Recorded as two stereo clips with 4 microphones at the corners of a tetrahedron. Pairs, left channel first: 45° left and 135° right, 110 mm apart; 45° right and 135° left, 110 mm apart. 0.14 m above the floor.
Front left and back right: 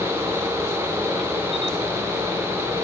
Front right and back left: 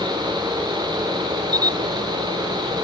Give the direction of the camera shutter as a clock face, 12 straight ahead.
6 o'clock.